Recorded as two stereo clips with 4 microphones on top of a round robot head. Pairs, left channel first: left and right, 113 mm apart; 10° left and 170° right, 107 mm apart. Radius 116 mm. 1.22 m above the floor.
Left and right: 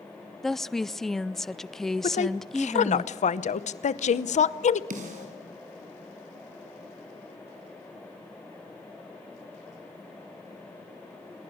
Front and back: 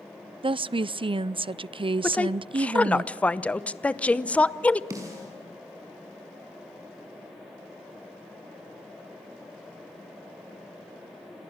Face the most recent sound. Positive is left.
turn(degrees=-105)